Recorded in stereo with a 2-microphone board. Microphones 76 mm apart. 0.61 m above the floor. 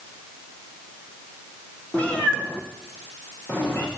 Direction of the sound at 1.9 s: 20° left (ahead or behind).